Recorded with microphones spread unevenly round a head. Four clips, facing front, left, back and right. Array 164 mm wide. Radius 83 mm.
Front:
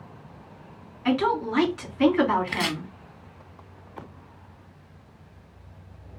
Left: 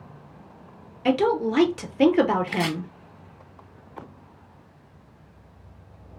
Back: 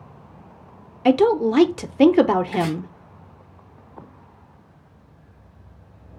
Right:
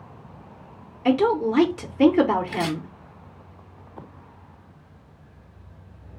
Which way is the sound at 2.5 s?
30° left.